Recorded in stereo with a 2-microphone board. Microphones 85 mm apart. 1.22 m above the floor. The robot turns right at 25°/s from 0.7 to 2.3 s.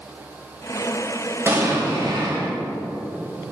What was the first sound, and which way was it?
An explosion, 30° right (ahead or behind).